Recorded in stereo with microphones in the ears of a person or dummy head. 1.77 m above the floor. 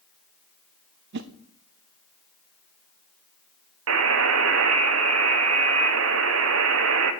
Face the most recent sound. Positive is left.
turn(degrees=-80)